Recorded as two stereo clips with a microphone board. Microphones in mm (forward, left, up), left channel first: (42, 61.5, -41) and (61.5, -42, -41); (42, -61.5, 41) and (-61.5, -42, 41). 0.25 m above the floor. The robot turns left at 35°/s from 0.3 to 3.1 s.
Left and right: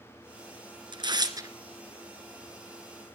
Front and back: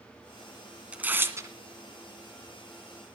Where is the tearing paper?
115° right, 1.8 m; by 1.5 s 135° right, 1.8 m.